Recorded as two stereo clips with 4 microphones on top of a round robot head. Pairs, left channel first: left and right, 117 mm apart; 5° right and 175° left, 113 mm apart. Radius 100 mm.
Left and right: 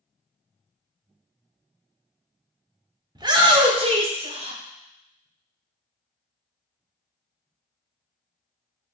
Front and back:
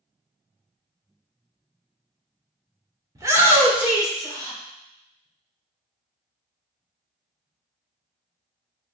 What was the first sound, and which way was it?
A shout, 130° right.